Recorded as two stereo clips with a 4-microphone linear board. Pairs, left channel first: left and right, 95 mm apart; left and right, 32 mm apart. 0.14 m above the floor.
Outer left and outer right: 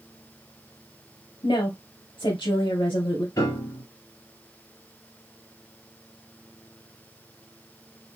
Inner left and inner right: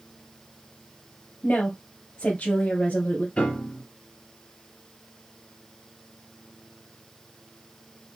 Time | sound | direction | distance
1.4 | a woman speaking | 60° left (ahead or behind) | 2.5 m
3.4 | a piano | 40° left (ahead or behind) | 2.5 m